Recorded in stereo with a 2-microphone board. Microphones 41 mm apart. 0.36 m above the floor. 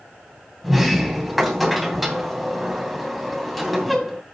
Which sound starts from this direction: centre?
A sliding door, at 0.6 s.